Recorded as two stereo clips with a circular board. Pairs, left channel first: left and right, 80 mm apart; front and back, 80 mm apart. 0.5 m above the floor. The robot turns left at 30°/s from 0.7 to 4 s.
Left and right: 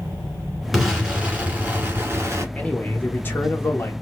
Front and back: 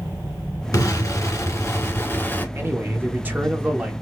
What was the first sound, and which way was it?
An explosion, straight ahead.